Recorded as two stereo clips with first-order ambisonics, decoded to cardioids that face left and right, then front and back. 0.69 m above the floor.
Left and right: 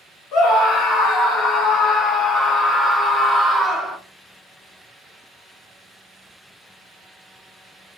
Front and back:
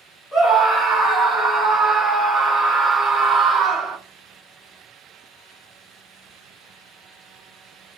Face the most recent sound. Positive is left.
turn(degrees=-140)